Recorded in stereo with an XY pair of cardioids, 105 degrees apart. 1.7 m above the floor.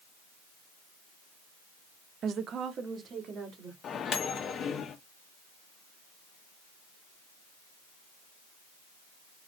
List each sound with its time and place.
2.2 s a woman speaking: 60° right, 0.6 m
3.8 s a microwave: 55° left, 1.0 m